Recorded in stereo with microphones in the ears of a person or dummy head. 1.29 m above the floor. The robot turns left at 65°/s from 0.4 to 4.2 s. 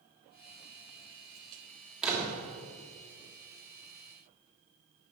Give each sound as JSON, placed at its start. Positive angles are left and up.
{"t": 2.0, "sound": "a door slam", "side_deg": 0, "distance_m": 3.0}